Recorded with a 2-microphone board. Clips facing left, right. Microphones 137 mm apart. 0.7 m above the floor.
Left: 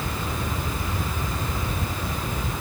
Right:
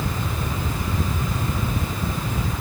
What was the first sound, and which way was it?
Only background noise.